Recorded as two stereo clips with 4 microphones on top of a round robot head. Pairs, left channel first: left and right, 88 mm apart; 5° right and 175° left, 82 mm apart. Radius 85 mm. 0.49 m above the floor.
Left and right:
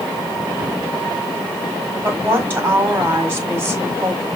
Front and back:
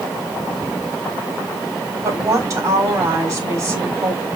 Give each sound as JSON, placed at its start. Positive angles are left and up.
{"t": 2.0, "sound": "a woman speaking", "azimuth_deg": -150, "distance_m": 1.8}